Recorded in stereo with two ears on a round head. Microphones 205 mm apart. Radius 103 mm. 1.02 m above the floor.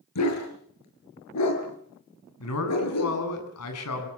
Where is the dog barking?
85° left, 7 m; by 3.2 s 75° left (ahead or behind), 7 m.